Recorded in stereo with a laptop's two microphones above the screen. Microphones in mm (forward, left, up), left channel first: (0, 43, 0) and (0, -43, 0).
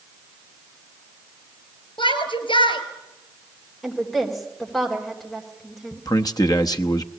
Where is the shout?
80° left, 4 m.